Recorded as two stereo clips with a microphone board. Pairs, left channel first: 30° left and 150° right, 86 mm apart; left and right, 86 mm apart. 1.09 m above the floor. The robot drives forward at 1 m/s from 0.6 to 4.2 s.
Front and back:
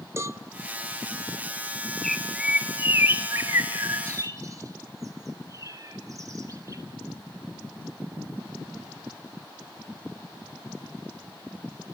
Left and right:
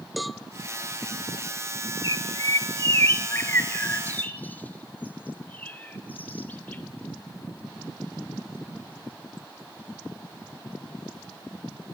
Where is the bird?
120° left, 1.1 m; by 6.8 s 160° left, 3 m.